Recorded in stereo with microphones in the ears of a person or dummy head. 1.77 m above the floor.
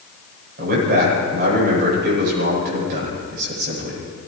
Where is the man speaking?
45° right (ahead or behind), 10 m.